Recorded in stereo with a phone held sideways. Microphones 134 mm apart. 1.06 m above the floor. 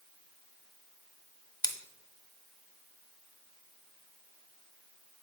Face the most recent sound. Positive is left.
turn(degrees=30)  # may be behind; listen again after turning